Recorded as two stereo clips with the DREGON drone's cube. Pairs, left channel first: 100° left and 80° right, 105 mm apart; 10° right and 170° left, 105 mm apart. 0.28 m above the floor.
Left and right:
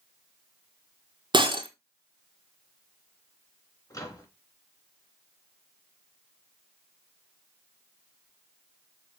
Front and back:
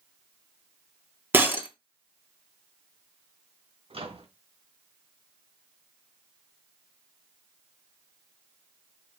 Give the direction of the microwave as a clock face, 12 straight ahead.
7 o'clock.